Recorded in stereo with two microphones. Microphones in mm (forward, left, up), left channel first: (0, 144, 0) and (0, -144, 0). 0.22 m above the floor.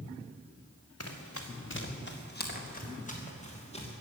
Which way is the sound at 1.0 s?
60° left (ahead or behind).